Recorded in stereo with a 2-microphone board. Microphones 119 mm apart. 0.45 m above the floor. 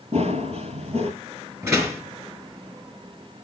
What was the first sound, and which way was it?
Running footsteps, 60° right (ahead or behind).